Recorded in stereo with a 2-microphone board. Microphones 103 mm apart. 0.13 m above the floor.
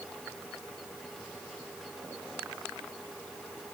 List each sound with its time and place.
Only background noise.